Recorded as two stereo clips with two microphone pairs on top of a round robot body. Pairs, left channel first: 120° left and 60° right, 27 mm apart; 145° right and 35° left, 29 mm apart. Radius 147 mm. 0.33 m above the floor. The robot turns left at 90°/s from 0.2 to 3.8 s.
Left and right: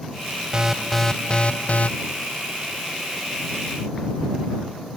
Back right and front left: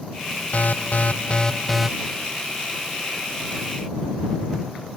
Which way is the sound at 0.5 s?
120° right.